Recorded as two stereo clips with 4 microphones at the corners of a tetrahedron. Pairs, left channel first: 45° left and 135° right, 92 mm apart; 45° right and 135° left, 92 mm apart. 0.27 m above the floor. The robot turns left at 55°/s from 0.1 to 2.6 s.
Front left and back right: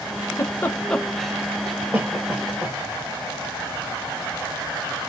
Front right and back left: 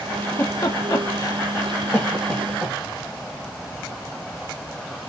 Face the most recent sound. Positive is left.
turn(degrees=-120)